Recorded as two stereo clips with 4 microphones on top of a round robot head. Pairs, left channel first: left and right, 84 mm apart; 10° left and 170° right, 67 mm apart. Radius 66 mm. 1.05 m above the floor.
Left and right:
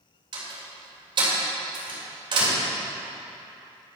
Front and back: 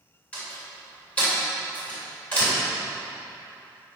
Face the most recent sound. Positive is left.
turn(degrees=-65)